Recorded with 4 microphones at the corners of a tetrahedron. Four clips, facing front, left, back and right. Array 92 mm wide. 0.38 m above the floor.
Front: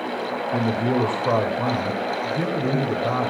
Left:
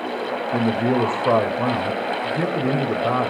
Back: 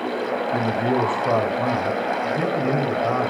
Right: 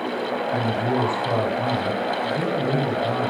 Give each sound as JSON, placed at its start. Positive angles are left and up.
{"t": 0.5, "sound": "a man speaking", "azimuth_deg": 85, "distance_m": 1.7}